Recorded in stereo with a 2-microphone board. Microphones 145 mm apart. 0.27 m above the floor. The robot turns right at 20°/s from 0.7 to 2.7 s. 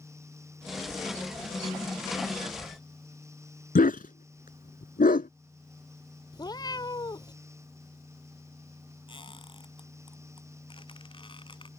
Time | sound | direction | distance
3.8 | a dog barking | 80° left | ?
6.3 | a cat meowing | 30° left (ahead or behind) | ?
9.1 | a squeak | 35° left (ahead or behind) | ?